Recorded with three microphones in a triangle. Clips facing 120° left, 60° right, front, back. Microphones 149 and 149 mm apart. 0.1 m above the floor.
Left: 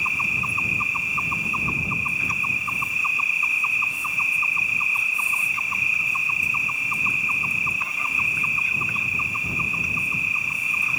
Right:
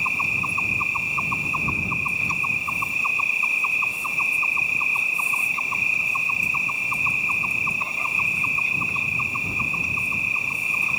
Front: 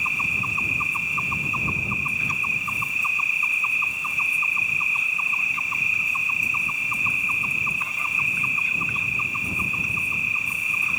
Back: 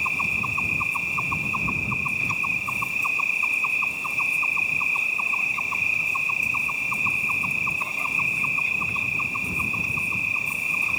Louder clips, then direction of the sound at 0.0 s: Right 1 dB, back 1 dB; 120° right.